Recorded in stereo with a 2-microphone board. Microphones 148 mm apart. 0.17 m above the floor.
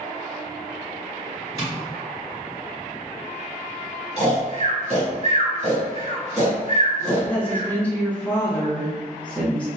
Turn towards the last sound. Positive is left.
turn(degrees=10)  # may be behind; listen again after turning